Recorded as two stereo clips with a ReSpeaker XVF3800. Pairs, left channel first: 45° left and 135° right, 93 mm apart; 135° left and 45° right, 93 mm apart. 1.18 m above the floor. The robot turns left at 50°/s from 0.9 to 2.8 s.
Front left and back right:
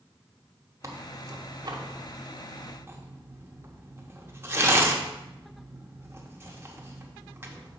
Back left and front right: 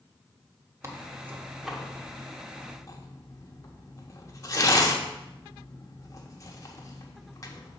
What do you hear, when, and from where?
0.8 s tearing paper: 90° right, 1.0 m; by 7.8 s 175° left, 1.0 m